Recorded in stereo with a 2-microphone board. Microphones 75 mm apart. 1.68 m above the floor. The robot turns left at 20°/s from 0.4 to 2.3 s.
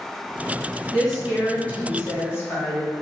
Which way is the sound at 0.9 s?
5° left (ahead or behind).